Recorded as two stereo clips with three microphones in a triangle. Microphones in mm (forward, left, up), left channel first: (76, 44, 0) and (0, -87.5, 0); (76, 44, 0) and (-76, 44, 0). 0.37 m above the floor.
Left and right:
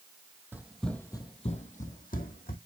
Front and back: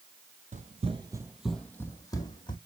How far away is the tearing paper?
I don't hear tearing paper.